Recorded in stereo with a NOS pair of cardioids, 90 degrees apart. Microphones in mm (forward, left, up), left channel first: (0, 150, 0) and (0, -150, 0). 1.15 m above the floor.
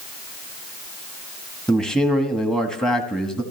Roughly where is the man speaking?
Ahead.